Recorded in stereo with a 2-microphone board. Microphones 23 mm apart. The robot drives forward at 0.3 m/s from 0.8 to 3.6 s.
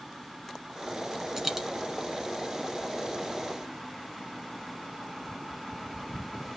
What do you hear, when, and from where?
1.4 s a dropped coin: 20° right (ahead or behind), 1.4 m; by 1.7 s 15° right (ahead or behind), 1.5 m